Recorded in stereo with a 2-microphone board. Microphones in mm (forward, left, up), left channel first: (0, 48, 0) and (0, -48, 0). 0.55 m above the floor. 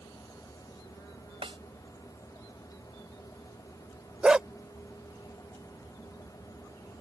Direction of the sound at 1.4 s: 65° right (ahead or behind).